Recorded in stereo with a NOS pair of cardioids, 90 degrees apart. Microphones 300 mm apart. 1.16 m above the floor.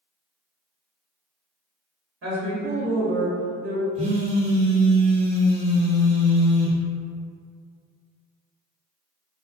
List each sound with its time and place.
2.2 s a woman speaking: 60° right, 1.5 m; by 3.9 s 35° right, 0.6 m
4.0 s a phone buzzing: 25° right, 0.9 m